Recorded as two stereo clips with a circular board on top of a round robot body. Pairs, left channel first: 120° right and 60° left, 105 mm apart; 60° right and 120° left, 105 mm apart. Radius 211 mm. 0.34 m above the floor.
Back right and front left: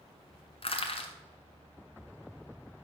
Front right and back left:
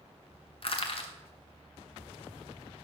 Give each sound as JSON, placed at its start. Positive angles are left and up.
{"t": 0.6, "sound": "crushing", "azimuth_deg": -90, "distance_m": 1.9}